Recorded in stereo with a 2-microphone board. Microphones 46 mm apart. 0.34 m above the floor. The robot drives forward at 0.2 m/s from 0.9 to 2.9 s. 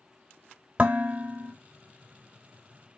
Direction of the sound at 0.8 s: 30° right (ahead or behind).